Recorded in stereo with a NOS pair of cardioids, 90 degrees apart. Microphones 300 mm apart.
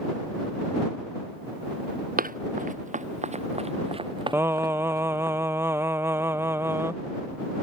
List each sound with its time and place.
2.2 s running footsteps: 30° right; by 5.3 s 10° right
4.3 s singing: 10° right